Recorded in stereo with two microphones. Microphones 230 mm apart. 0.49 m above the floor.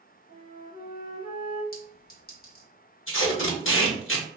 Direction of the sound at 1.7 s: 45° left (ahead or behind).